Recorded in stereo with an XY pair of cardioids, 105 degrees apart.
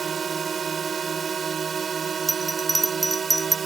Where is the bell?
15° right.